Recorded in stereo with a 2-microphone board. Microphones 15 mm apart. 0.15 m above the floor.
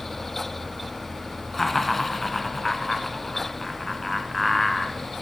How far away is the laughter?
About 1.3 m.